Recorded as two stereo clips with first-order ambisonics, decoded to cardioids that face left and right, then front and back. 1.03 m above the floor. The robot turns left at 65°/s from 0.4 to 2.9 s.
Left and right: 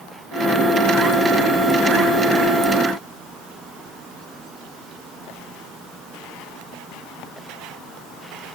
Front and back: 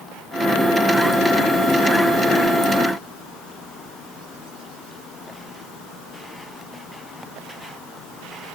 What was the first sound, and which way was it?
Only background noise.